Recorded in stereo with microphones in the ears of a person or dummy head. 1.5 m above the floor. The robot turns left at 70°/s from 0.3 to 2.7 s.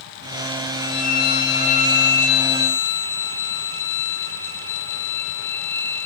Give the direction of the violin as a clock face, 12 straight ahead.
7 o'clock.